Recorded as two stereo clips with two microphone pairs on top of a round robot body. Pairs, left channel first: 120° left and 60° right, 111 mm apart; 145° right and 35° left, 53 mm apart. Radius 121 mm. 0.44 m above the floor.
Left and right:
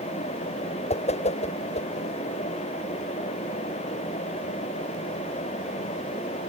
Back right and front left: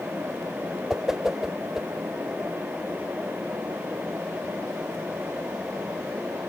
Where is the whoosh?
115° left.